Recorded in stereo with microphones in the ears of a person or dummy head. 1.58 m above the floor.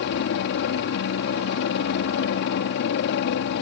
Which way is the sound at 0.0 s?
60° left (ahead or behind).